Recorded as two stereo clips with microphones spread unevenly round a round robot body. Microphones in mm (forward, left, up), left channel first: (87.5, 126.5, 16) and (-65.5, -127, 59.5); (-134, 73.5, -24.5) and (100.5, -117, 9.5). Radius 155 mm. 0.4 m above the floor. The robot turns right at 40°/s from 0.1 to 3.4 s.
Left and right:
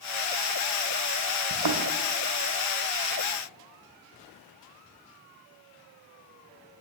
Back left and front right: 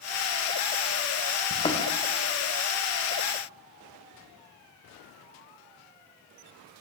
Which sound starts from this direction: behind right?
A thud, at 1.5 s.